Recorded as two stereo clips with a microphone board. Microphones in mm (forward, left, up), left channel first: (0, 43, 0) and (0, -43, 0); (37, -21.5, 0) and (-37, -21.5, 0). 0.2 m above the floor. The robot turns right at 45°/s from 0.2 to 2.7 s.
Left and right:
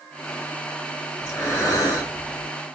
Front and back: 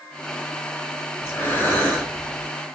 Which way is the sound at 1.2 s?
35° left.